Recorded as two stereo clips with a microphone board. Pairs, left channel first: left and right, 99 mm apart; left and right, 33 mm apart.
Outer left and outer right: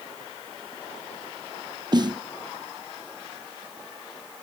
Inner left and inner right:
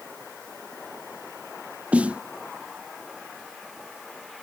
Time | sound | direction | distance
1.9 | a snare drum | 40° right (ahead or behind) | ?